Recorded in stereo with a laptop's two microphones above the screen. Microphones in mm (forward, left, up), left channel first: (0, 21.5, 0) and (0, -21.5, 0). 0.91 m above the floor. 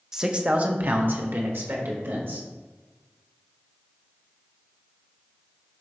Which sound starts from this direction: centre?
A man speaking, at 0.1 s.